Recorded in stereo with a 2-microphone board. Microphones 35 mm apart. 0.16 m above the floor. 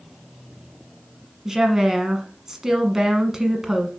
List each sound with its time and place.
1.4 s a woman speaking: 15° right (ahead or behind), 1.1 m